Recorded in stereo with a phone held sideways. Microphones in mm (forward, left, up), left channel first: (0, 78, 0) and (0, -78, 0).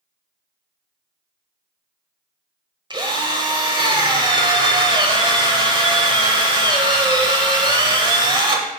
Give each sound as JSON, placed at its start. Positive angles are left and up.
{"t": 2.9, "sound": "a drill", "side_deg": -30, "distance_m": 1.3}